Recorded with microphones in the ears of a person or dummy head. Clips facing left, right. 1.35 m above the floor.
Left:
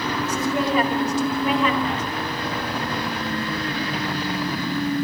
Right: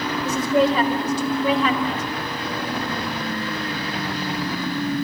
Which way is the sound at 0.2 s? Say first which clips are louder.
Right 6 dB; 30° right (ahead or behind).